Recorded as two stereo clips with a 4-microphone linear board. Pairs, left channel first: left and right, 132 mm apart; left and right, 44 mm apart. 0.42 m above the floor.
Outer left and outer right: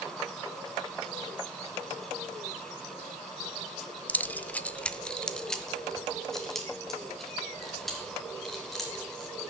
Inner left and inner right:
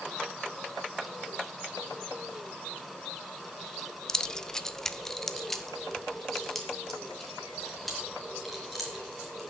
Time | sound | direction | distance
4.1 | keys jangling | 10° left (ahead or behind) | 0.5 m